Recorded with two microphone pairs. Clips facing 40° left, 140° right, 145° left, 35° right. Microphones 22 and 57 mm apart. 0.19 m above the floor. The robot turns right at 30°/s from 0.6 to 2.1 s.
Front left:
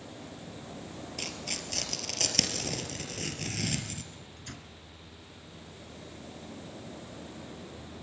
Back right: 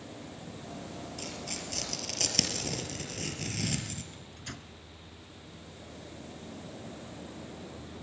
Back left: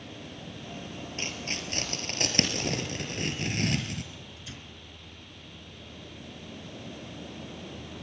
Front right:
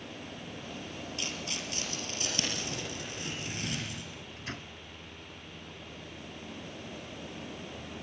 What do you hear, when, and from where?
1.2 s tearing paper: 95° left, 3.5 m; by 4.0 s 125° left, 3.5 m
4.1 s a microwave: 65° right, 1.6 m